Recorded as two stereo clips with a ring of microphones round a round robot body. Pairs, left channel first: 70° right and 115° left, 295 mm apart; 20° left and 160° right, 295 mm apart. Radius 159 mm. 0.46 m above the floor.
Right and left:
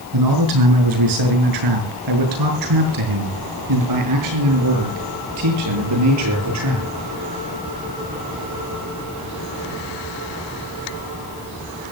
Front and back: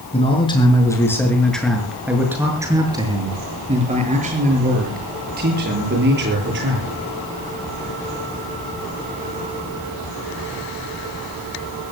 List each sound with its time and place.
0.1 s a man speaking: 95° left, 6.5 m; by 6.9 s 150° left, 11 m